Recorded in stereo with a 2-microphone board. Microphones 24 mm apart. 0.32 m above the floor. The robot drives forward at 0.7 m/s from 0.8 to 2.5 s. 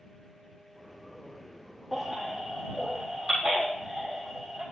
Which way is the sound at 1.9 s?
5° right (ahead or behind).